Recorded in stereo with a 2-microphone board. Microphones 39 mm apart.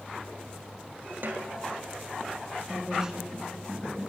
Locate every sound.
1.2 s a snare drum: 60° right (ahead or behind), 1.0 m
2.7 s a woman speaking: 15° right (ahead or behind), 1.8 m